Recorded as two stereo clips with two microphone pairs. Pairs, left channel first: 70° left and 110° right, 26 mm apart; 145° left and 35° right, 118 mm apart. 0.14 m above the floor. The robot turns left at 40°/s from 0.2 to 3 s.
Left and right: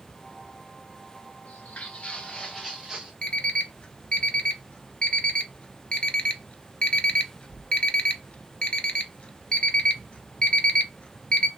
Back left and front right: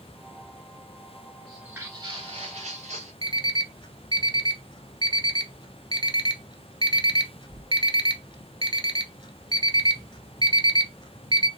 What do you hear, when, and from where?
1.4 s footsteps: 60° left, 1.0 m; by 3.1 s 50° right, 1.3 m
3.2 s an alarm clock: 105° left, 0.8 m